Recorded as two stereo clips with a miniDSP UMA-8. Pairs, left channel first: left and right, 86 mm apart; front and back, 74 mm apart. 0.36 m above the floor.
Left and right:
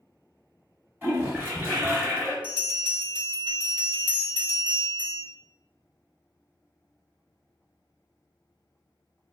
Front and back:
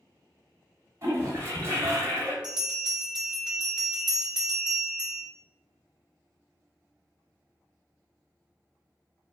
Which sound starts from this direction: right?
A bell, at 2.4 s.